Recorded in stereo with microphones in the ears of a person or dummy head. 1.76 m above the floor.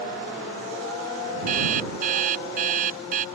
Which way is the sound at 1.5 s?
50° right (ahead or behind).